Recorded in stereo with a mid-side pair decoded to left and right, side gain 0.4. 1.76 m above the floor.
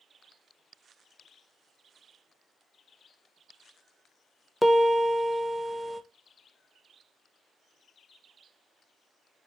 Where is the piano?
10° left, 0.7 m.